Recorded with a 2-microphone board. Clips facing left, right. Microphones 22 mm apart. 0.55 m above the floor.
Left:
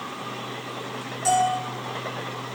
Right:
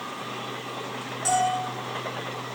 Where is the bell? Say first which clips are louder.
Left 2 dB; centre (ahead or behind), 6 m.